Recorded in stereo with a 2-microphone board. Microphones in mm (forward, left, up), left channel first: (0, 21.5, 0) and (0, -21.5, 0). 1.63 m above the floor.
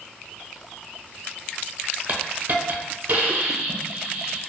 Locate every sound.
2.1 s a hiss: 40° right (ahead or behind), 0.7 m